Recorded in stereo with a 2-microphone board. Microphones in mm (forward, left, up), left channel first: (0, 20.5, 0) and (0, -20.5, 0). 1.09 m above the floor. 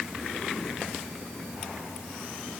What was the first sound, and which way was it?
Only background noise.